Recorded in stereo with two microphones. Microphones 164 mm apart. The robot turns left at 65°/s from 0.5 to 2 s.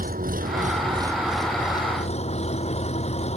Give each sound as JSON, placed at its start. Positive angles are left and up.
{"t": 0.0, "sound": "an engine running", "azimuth_deg": -125}